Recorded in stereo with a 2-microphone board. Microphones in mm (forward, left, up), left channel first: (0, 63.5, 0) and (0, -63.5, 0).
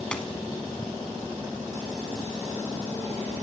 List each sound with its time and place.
0.1 s a dropped coin: 10° left (ahead or behind), 0.9 m